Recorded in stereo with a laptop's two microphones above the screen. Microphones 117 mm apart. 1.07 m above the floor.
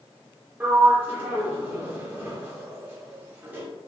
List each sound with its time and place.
0.6 s a sliding door: 20° right (ahead or behind), 0.9 m